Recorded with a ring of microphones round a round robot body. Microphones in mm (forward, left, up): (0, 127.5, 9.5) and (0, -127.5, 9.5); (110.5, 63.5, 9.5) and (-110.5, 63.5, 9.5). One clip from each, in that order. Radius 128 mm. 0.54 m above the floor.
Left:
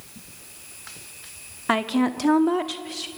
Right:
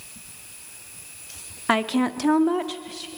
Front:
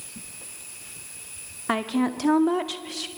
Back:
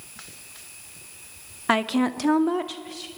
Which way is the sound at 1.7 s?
160° right.